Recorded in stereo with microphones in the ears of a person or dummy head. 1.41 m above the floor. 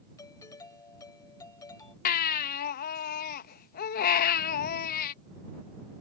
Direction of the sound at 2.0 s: 50° left (ahead or behind).